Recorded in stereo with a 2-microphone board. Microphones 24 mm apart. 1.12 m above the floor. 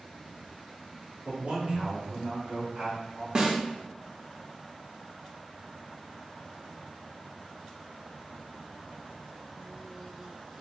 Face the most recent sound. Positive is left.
turn(degrees=-25)  # may be behind; listen again after turning